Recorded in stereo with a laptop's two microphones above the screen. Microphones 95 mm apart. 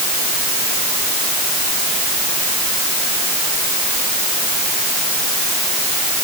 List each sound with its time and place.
Only background noise.